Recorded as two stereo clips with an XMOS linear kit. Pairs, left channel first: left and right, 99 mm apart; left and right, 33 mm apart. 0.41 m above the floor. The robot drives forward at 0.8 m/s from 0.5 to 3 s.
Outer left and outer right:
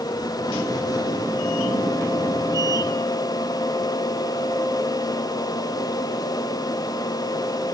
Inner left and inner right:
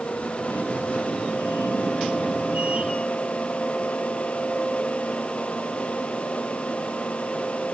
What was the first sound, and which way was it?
Only background noise.